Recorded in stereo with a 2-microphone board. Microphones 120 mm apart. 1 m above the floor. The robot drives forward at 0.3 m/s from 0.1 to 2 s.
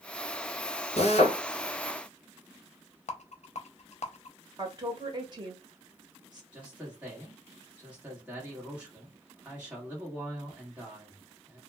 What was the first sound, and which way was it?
A drill, 60° left (ahead or behind).